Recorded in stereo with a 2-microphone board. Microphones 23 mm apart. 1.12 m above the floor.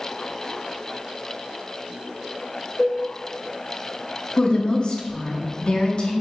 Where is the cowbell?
20° left (ahead or behind), 1.4 m.